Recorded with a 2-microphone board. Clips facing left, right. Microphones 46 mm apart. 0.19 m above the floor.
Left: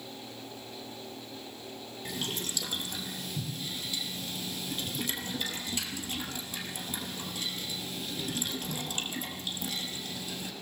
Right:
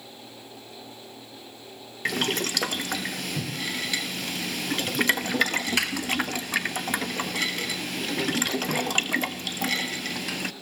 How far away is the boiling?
About 0.5 m.